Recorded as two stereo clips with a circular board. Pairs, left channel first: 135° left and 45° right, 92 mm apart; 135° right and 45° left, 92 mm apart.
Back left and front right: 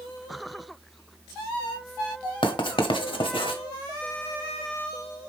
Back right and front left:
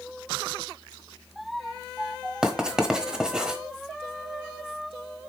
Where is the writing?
125° left, 1.0 m.